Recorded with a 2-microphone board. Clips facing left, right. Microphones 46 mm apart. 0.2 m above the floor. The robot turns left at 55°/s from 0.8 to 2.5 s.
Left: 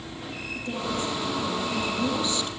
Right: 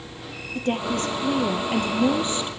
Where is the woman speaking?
60° right, 5 m; by 2.5 s 155° right, 5 m.